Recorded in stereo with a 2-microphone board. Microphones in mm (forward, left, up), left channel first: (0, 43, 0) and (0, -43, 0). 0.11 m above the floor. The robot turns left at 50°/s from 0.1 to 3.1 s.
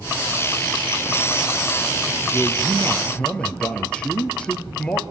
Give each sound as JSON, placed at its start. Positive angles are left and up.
{"t": 2.3, "sound": "a man speaking", "azimuth_deg": -155, "distance_m": 2.5}